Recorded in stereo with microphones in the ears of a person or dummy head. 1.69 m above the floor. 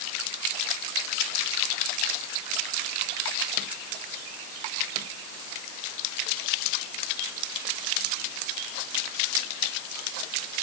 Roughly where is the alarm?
I don't hear an alarm.